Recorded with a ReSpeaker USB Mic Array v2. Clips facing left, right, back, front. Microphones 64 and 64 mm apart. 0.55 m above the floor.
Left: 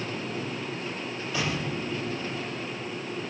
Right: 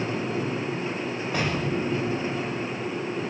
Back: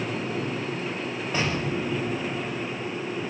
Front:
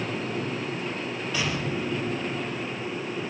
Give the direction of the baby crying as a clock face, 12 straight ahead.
I don't hear a baby crying.